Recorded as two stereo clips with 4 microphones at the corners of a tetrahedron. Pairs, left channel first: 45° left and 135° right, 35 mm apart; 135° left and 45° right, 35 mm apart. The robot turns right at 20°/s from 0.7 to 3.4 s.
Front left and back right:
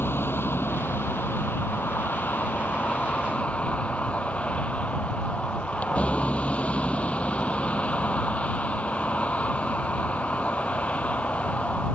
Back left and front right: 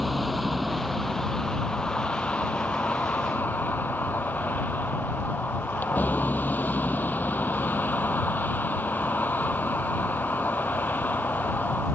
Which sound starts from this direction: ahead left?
A vehicle, at 0.0 s.